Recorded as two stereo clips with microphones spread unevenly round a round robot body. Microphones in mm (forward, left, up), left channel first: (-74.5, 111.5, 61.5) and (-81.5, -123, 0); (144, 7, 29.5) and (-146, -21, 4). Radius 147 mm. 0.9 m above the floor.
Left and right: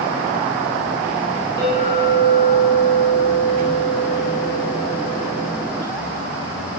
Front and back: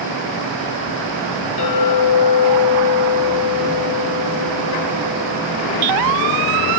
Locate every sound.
1.6 s a clink: 15° left, 2 m